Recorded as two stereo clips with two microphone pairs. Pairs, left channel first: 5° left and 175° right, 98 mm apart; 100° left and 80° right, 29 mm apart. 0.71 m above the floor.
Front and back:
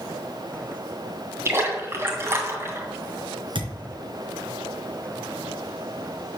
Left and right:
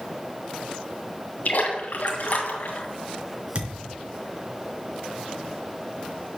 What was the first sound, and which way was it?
A splash, 125° left.